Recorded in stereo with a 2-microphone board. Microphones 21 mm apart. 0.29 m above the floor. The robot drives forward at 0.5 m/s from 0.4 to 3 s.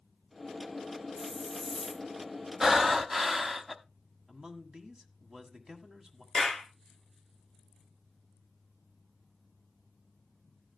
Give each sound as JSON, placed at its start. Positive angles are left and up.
{"t": 1.2, "sound": "a hiss", "side_deg": 15, "distance_m": 1.5}
{"t": 2.6, "sound": "breathing", "side_deg": -20, "distance_m": 0.7}
{"t": 4.3, "sound": "a man speaking", "side_deg": -40, "distance_m": 1.8}
{"t": 6.3, "sound": "a clap", "side_deg": -15, "distance_m": 3.0}